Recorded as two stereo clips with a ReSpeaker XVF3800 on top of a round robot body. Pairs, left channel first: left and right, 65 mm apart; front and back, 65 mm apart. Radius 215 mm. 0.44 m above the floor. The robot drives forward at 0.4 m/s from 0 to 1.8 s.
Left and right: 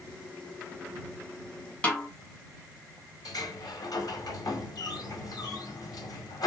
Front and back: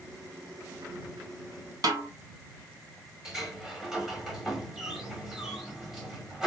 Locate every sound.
1.8 s a snare drum: 160° left, 1.0 m
3.2 s a sliding door: 100° left, 1.1 m